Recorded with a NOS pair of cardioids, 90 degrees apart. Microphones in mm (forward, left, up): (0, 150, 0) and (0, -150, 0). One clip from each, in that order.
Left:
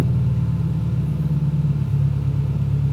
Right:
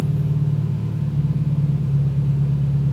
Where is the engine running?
60° left, 6.5 m.